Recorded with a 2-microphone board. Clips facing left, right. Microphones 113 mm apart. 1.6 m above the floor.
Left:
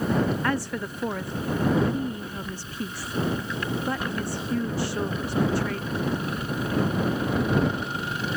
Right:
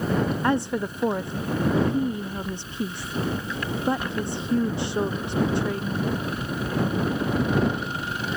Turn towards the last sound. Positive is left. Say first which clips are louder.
# right 4 dB
turn(degrees=-25)  # may be behind; listen again after turning